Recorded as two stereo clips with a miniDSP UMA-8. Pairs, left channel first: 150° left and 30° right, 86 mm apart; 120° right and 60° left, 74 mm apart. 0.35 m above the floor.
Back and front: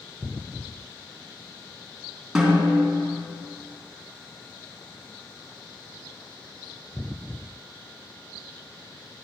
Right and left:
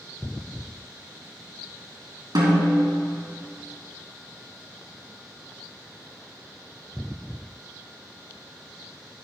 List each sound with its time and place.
2.4 s a snare drum: 50° left, 3 m